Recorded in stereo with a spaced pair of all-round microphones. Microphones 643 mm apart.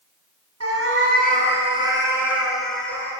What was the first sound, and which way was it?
A cat meowing, 25° right (ahead or behind).